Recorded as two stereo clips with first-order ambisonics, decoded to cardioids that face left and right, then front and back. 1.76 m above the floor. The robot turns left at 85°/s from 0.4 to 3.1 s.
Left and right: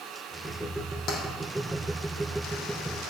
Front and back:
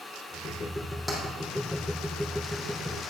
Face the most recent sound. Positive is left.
turn(degrees=-95)